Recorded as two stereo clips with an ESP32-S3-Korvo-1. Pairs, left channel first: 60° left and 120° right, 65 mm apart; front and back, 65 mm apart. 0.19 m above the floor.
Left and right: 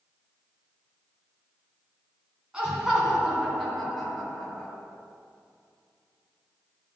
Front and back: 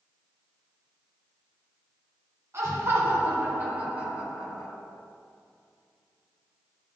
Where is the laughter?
170° left, 2.0 m; by 4.7 s 110° left, 1.5 m.